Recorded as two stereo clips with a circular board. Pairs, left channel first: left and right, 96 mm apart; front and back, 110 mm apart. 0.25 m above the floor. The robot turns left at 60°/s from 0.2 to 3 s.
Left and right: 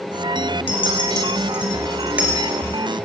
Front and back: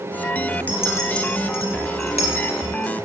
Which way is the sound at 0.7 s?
75° left.